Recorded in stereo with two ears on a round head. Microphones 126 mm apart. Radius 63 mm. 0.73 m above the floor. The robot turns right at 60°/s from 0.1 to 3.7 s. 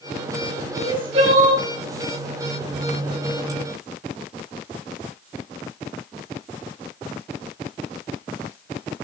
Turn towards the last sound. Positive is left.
turn(degrees=20)